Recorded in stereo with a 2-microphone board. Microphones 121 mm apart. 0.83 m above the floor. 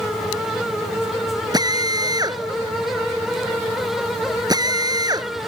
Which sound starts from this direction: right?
A drill, at 1.5 s.